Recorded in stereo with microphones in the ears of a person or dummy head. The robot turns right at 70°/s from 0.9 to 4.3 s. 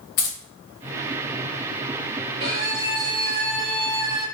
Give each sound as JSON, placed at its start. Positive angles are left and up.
{"t": 0.2, "sound": "keys jangling", "side_deg": 50, "distance_m": 0.8}
{"t": 2.4, "sound": "a violin", "azimuth_deg": -140, "distance_m": 1.2}